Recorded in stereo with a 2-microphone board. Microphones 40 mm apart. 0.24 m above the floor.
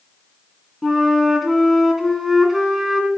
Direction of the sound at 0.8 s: 5° right (ahead or behind).